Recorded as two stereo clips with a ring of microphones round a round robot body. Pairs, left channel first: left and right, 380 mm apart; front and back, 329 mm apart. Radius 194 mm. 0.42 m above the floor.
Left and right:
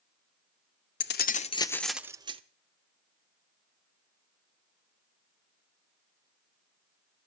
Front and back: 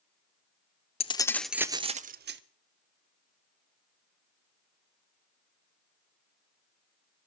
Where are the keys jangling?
60° left, 0.8 m; by 2.4 s 155° right, 0.8 m.